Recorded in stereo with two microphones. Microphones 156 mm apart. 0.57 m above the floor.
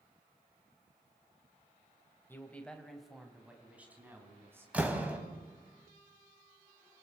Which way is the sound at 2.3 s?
15° left (ahead or behind).